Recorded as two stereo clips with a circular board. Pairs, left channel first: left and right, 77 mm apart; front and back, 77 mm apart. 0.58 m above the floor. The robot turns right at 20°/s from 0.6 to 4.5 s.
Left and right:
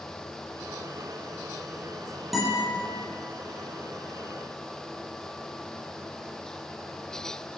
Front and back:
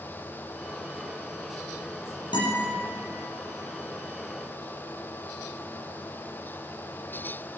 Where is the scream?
No scream in this recording.